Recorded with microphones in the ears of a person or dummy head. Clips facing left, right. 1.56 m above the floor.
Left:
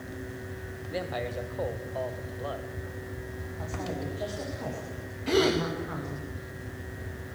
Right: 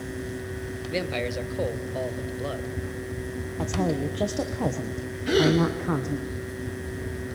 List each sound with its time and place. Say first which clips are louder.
0.9 s a man speaking: right 4 dB; 35° right (ahead or behind), 1.3 m
3.6 s a woman speaking: right 9 dB; 70° right (ahead or behind), 1.3 m
5.3 s a gasp: right 4 dB; 15° right (ahead or behind), 2.5 m